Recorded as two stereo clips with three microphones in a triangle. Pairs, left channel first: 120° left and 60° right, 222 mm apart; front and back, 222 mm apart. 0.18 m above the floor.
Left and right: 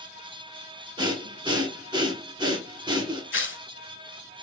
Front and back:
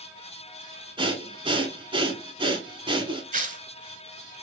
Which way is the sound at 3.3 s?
135° left.